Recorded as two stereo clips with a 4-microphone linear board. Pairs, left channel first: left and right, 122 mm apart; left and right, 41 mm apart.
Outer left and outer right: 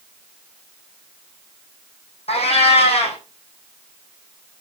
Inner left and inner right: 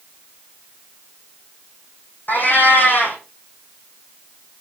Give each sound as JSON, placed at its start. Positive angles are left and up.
{"t": 2.3, "sound": "a cat meowing", "side_deg": 55, "distance_m": 3.0}